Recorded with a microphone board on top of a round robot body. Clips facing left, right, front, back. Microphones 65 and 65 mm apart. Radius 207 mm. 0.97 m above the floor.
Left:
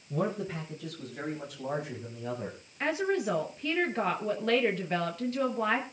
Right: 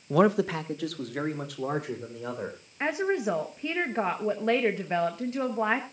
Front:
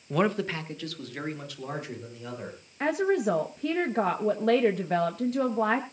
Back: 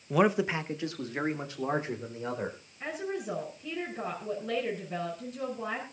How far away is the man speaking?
About 0.8 m.